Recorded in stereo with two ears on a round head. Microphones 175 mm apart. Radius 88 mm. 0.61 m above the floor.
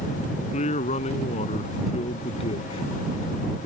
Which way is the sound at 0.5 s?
35° left (ahead or behind).